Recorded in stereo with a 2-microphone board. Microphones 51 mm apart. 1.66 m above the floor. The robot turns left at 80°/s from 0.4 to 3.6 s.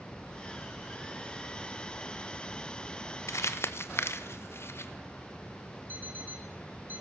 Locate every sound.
3.3 s crumpling: 70° left (ahead or behind), 1.3 m; by 4.9 s 55° left (ahead or behind), 1.3 m
5.9 s an alarm clock: 40° right (ahead or behind), 2.5 m